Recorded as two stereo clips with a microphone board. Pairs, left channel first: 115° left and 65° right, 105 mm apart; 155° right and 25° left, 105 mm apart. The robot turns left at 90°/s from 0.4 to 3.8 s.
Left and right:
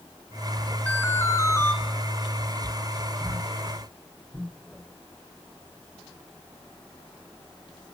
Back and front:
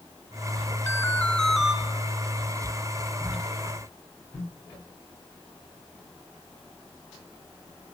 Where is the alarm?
175° left, 2 m; by 1.7 s 95° left, 2 m.